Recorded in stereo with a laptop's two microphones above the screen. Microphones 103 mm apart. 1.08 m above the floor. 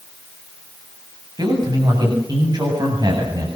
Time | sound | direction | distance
1.4 | a man speaking | 40° right (ahead or behind) | 8 m